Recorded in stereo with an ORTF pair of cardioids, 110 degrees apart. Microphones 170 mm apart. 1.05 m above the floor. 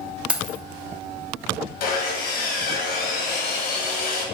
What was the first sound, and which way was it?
Keys jangling, 5° right.